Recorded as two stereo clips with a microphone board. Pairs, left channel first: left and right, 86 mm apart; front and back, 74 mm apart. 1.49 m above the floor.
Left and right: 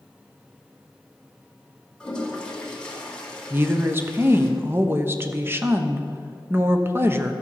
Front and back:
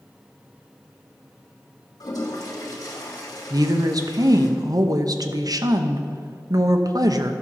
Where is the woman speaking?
150° right, 0.8 m.